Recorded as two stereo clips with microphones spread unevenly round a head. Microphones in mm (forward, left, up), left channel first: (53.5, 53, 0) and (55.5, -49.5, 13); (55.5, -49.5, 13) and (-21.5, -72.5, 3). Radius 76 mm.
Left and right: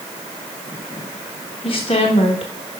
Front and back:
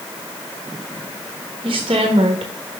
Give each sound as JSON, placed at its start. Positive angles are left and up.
{"t": 1.6, "sound": "a woman speaking", "azimuth_deg": 145, "distance_m": 0.9}